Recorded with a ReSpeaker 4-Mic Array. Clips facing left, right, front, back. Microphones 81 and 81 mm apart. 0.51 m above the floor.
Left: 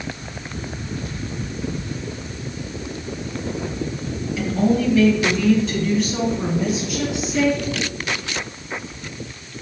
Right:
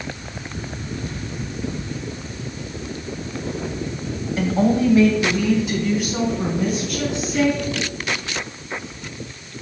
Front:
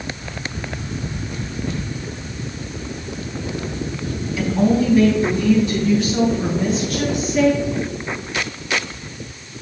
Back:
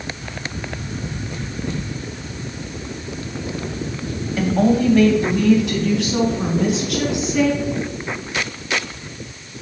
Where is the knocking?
I don't hear knocking.